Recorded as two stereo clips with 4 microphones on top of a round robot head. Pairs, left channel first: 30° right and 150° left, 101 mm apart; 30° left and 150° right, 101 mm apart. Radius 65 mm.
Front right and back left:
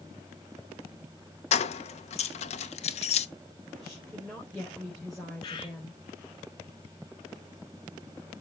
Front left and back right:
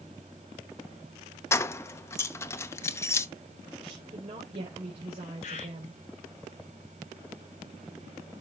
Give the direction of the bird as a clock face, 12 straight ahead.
12 o'clock.